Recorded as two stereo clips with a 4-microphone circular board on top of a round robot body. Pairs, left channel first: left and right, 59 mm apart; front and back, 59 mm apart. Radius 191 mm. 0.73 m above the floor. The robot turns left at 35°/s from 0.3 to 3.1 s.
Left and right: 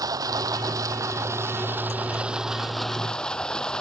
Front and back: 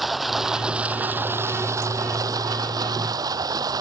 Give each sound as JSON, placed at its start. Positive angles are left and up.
{"t": 0.0, "sound": "running water", "azimuth_deg": -90}